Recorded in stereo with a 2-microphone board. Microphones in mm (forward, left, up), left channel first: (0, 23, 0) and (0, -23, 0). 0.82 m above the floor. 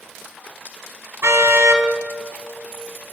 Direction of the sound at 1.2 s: 75° right (ahead or behind).